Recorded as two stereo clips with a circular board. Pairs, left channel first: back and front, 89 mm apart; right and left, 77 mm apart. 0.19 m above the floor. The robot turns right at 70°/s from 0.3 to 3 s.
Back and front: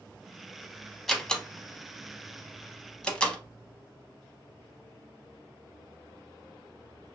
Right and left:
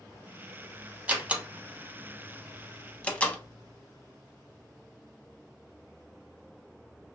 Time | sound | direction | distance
1.1 | a door slam | 100° left | 0.7 m